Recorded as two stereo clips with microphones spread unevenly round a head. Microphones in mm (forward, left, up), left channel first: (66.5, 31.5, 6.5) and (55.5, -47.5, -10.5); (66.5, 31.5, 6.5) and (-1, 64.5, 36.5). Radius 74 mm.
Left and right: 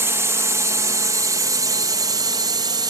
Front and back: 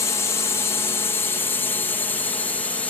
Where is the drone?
50° right; by 2.9 s 85° right.